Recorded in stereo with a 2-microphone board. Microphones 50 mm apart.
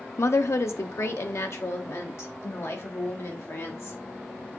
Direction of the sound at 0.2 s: 70° left (ahead or behind).